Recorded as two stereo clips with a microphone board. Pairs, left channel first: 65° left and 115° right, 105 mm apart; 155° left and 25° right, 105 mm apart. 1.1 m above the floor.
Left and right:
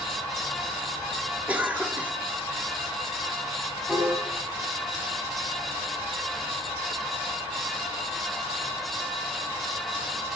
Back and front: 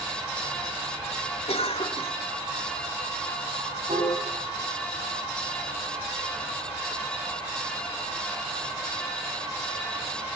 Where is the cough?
170° left, 3 m.